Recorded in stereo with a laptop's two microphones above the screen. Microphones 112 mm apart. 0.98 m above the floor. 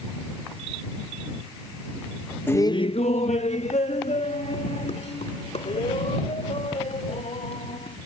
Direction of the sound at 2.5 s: 15° left (ahead or behind).